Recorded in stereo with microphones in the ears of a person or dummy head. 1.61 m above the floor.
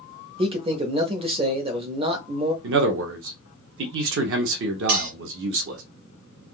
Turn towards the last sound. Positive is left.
turn(degrees=-50)  # may be behind; listen again after turning